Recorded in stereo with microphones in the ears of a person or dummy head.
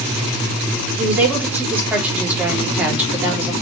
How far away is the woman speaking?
About 3.5 m.